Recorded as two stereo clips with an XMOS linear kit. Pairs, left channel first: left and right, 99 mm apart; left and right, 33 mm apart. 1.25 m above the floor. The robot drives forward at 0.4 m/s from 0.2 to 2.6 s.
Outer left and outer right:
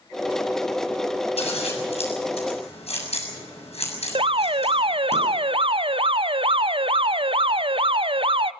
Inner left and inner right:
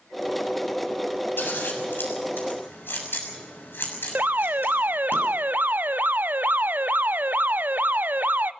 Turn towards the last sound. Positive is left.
turn(degrees=-60)  # may be behind; listen again after turning